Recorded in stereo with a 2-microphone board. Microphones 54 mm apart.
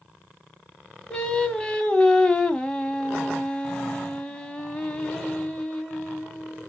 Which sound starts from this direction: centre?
Singing, at 1.1 s.